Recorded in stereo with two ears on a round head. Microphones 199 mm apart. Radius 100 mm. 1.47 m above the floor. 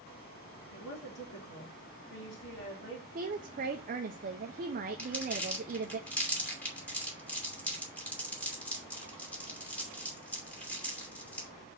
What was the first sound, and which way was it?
A woman speaking, 55° left (ahead or behind).